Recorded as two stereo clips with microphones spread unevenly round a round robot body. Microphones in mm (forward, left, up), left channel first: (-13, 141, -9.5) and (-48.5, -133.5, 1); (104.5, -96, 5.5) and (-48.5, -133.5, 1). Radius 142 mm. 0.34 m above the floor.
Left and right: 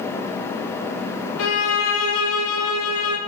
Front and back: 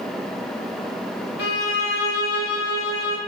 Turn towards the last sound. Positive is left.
turn(degrees=35)